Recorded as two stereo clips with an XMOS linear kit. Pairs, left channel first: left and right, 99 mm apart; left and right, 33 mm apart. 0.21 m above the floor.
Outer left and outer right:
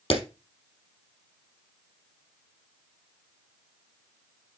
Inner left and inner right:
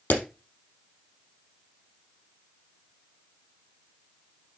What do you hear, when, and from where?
0.1 s a clap: 75° left (ahead or behind), 4.5 m